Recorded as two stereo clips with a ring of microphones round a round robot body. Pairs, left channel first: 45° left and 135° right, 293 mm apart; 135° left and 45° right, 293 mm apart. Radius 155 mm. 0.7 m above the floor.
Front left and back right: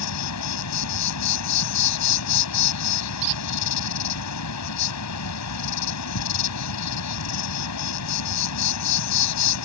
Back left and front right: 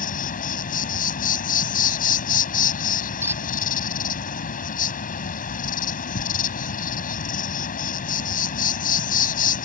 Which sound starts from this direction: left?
An insect, at 0.0 s.